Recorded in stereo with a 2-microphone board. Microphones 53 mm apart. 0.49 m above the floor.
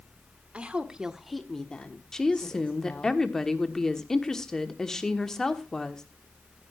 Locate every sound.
0.5 s a woman speaking: 20° right (ahead or behind), 1.5 m; by 3.1 s 35° left (ahead or behind), 2.5 m
2.1 s a woman speaking: 10° left (ahead or behind), 1.2 m